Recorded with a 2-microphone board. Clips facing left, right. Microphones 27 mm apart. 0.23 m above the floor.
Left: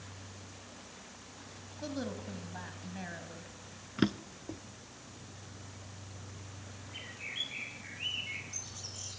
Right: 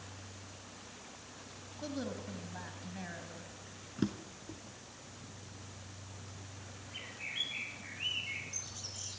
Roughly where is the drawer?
Left.